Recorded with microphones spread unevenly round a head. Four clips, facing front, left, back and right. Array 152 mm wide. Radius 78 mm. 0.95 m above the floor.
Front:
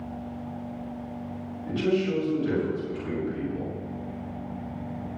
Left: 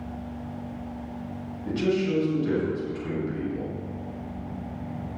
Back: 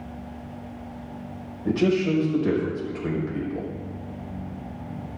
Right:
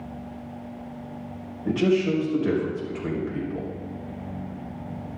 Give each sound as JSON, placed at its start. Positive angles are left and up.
{"t": 1.6, "sound": "a man speaking", "azimuth_deg": -145, "distance_m": 6.0}